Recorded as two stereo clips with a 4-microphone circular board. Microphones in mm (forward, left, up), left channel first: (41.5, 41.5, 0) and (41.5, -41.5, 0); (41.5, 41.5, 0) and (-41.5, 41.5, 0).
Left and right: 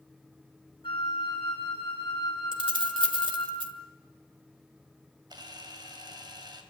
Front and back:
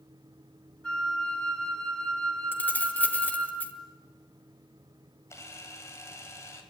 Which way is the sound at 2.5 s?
70° right.